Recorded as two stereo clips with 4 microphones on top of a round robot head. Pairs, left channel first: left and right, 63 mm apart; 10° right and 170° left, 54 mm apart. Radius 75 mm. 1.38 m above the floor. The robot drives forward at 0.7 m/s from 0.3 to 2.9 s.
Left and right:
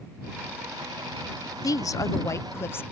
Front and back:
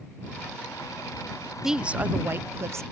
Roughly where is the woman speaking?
Left.